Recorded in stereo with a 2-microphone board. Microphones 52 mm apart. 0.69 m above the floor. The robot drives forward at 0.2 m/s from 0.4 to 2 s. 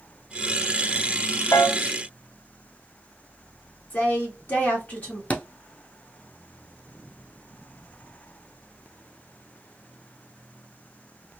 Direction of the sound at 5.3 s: 30° left (ahead or behind).